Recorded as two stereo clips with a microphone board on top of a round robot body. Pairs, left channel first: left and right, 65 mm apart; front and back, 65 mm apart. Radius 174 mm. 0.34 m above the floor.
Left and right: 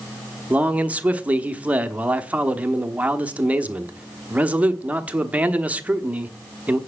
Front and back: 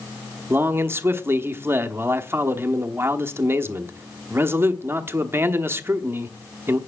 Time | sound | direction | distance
0.5 | a man speaking | 145° right | 1.3 m